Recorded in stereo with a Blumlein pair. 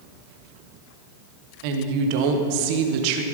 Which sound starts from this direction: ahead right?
A woman speaking, at 1.6 s.